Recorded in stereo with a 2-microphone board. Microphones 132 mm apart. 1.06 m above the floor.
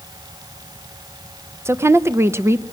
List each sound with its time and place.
1.6 s a woman speaking: 20° right (ahead or behind), 0.7 m